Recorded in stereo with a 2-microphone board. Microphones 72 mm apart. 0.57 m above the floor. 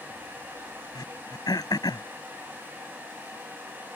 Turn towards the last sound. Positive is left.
turn(degrees=70)  # may be behind; listen again after turning